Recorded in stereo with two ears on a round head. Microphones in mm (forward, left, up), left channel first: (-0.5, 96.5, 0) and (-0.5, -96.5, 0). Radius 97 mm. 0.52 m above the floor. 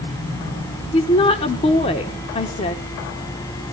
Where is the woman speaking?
25° left (ahead or behind), 1.0 m.